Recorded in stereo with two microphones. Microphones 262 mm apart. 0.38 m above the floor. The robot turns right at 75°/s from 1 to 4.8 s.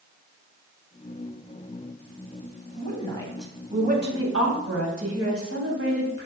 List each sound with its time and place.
2.8 s a woman speaking: 135° left, 2.5 m; by 6.3 s 75° right, 2.5 m